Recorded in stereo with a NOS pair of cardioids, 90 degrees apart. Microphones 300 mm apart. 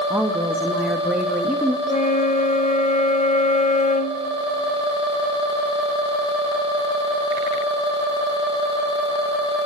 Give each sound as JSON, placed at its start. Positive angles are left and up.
{"t": 0.1, "sound": "a woman speaking", "azimuth_deg": -5, "distance_m": 2.5}
{"t": 1.9, "sound": "a flute", "azimuth_deg": 25, "distance_m": 2.0}